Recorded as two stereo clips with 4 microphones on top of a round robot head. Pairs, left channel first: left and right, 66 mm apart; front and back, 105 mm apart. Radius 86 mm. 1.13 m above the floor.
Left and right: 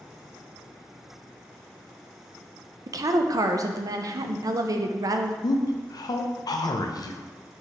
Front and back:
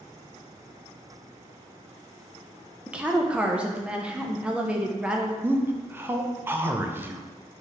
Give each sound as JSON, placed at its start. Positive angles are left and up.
{"t": 2.9, "sound": "a woman speaking", "azimuth_deg": -100, "distance_m": 0.5}
{"t": 5.4, "sound": "a man speaking", "azimuth_deg": 110, "distance_m": 0.5}